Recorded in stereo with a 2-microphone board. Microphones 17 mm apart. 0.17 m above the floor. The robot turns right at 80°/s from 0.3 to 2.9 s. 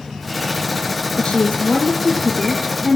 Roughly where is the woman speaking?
Ahead left.